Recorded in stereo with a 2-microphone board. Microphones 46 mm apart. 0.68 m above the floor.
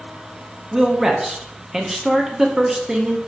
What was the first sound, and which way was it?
A man speaking, 15° right (ahead or behind).